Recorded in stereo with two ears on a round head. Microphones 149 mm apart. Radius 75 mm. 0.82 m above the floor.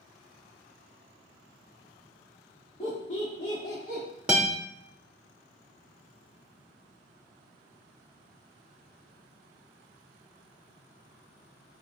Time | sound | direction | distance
2.8 | laughter | 30° left (ahead or behind) | 1.2 m
4.3 | a guitar | 5° right (ahead or behind) | 0.7 m